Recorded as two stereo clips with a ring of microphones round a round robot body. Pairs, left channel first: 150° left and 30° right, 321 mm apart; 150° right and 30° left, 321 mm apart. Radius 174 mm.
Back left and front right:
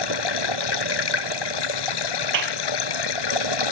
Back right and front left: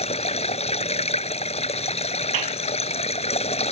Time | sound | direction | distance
0.0 | running water | 135° left | ?
2.3 | a clap | 10° left | ?